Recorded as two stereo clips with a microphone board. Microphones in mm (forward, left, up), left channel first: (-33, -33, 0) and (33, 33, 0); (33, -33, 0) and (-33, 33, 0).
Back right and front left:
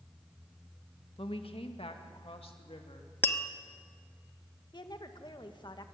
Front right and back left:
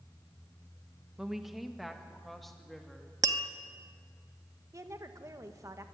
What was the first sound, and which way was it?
A woman speaking, 140° right.